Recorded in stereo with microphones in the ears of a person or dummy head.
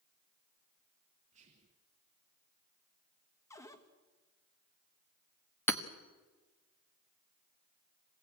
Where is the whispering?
40° right (ahead or behind), 1.0 m.